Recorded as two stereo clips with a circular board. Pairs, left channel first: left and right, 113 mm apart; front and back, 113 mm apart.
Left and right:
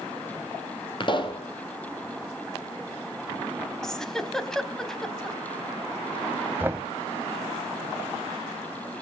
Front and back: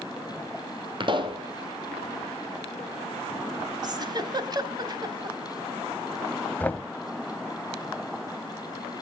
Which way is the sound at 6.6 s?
50° right.